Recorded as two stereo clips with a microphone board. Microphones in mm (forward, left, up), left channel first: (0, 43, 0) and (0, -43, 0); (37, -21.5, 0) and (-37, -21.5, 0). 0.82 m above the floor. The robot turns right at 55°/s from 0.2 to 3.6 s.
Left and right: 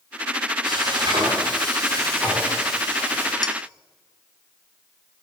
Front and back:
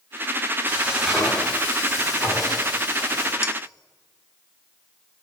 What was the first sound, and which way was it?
Frying, 115° right.